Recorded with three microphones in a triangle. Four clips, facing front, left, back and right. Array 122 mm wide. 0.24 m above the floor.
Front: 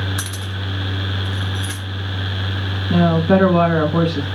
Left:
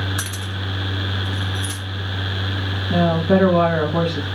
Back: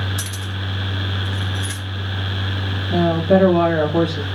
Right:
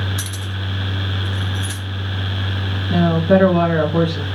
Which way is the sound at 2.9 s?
Straight ahead.